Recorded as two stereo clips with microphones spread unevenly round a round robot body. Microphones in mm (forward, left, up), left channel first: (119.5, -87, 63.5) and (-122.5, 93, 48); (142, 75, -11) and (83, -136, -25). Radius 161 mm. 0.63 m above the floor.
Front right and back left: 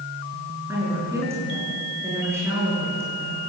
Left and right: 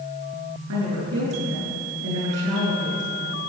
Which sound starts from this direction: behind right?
A woman speaking, at 0.7 s.